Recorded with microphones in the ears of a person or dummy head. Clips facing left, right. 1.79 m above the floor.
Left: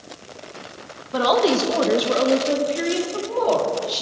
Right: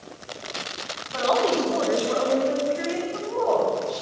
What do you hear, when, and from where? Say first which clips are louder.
1.1 s a woman speaking: left 4 dB; 60° left (ahead or behind), 2.5 m; by 4.0 s 45° left (ahead or behind), 5.5 m